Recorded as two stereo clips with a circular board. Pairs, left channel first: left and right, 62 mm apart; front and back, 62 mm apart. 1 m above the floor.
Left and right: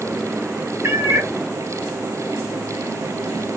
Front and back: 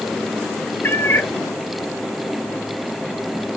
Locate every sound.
0.8 s a cat meowing: 50° right, 0.5 m